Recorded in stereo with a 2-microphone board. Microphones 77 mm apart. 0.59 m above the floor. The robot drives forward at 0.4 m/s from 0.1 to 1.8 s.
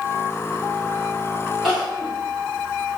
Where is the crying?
5° right (ahead or behind), 1.4 m.